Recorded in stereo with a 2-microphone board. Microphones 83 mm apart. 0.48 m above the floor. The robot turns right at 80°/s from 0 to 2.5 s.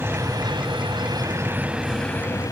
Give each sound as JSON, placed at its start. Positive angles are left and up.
{"t": 0.0, "sound": "a helicopter", "side_deg": -25}